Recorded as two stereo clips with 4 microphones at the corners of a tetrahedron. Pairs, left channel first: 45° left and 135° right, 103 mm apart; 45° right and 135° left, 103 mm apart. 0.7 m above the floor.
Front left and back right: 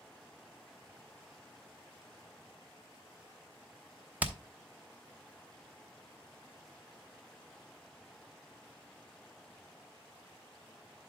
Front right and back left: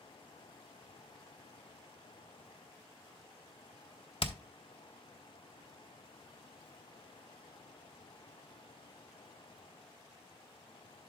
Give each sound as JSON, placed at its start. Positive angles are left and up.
{"t": 4.2, "sound": "hammering", "azimuth_deg": -60, "distance_m": 0.9}